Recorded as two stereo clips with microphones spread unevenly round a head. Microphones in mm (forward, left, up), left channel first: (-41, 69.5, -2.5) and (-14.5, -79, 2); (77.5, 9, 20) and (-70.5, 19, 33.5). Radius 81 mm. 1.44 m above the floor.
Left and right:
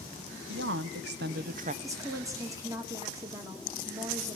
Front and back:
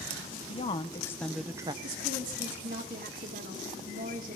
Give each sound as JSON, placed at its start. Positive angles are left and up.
{"t": 0.5, "sound": "a woman speaking", "azimuth_deg": -60, "distance_m": 1.0}
{"t": 1.8, "sound": "a woman speaking", "azimuth_deg": -150, "distance_m": 1.9}